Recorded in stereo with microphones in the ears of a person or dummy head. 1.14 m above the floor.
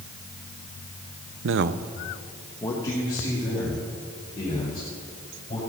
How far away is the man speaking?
About 0.5 m.